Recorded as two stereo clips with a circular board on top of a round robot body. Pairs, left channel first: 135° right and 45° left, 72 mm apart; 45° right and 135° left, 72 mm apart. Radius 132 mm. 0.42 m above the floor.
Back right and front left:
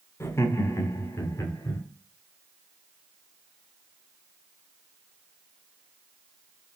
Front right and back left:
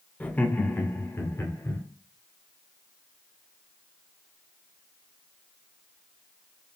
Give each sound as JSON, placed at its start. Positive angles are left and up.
{"t": 0.2, "sound": "laughter", "azimuth_deg": -110, "distance_m": 1.3}